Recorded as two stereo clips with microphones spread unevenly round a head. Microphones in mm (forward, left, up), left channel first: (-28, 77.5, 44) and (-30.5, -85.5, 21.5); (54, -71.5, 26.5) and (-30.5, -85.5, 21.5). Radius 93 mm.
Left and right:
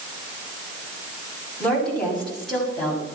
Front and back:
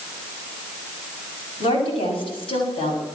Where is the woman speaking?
5° left, 7.5 m; by 3.0 s straight ahead, 7 m.